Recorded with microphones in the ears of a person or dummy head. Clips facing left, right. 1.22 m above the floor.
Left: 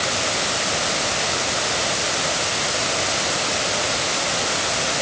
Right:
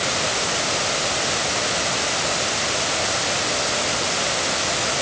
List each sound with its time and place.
Only background noise.